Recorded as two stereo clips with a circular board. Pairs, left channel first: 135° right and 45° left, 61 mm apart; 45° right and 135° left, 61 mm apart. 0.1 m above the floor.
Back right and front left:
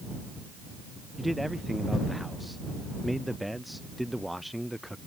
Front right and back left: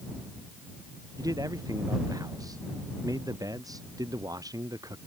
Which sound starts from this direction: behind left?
A man speaking, at 1.2 s.